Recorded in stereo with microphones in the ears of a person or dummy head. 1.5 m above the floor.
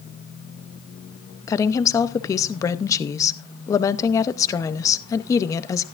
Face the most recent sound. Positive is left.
turn(degrees=15)  # may be behind; listen again after turning